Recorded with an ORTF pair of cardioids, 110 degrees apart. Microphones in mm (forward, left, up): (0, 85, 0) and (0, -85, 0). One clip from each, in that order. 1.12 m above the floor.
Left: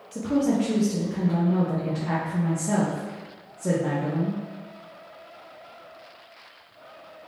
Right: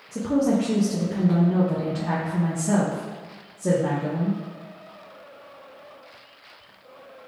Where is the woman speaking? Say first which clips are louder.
Right 2 dB; 10° right, 0.6 m.